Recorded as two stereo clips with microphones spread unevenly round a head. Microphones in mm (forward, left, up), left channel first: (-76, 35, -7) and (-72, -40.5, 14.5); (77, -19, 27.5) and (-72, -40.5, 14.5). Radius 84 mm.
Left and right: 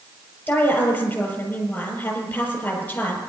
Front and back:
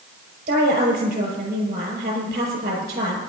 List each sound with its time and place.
0.5 s a woman speaking: 160° left, 5.5 m